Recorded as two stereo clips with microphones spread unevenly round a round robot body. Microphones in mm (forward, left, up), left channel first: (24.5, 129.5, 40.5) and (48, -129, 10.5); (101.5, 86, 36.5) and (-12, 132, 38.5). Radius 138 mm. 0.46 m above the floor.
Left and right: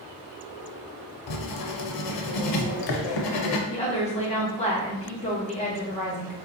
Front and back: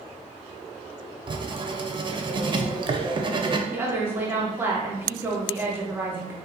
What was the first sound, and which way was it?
Writing, 100° left.